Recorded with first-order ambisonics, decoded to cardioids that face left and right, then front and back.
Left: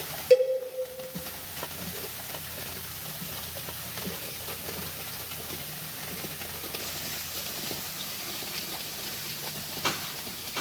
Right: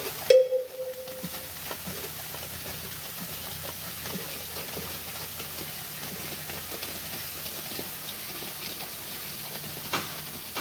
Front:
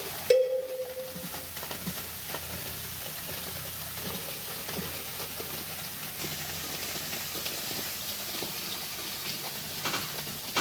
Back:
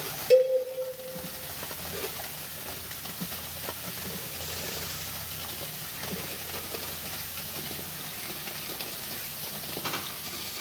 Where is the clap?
I don't hear a clap.